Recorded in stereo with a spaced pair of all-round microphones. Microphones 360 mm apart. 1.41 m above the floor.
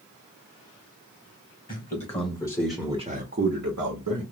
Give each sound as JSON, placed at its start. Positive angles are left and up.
{"t": 1.7, "sound": "a man speaking", "side_deg": 25, "distance_m": 1.3}